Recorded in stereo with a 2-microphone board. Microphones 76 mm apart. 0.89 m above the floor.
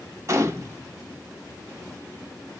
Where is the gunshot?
40° right (ahead or behind), 0.7 m.